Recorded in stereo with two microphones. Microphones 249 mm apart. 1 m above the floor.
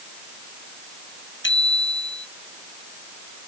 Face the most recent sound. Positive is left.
turn(degrees=50)  # may be behind; listen again after turning